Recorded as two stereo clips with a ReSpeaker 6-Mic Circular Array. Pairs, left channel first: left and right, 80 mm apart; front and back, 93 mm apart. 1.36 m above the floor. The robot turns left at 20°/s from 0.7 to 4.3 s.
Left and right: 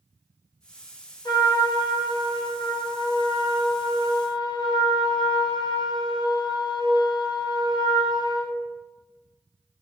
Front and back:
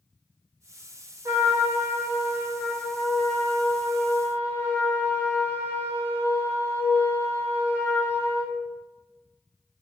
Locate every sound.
1.2 s a trumpet: 125° left, 0.6 m; by 8.6 s 65° left, 0.6 m